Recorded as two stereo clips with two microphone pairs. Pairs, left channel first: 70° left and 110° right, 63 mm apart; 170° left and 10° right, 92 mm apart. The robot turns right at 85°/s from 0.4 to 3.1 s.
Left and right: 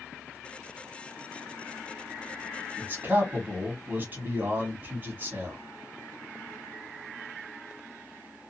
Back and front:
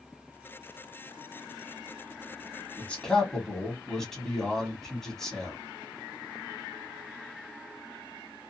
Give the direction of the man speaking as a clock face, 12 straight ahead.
5 o'clock.